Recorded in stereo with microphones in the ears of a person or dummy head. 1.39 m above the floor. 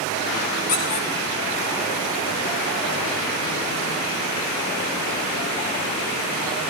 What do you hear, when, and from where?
0.7 s a squeak: 35° left (ahead or behind), 0.7 m